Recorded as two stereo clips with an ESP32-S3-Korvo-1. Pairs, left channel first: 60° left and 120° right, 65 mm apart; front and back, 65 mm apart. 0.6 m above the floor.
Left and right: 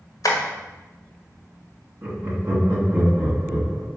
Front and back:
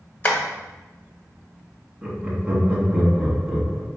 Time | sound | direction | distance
0.2 | tapping | 60° left | 1.1 m
2.0 | laughter | 105° right | 1.3 m